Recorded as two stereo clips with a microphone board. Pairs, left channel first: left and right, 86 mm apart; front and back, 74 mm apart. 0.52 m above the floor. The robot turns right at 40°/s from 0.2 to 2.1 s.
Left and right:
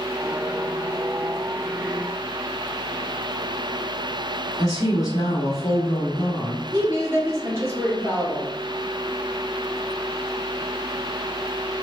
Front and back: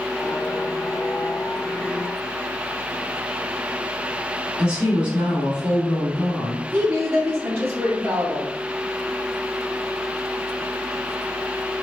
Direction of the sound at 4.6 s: 110° left.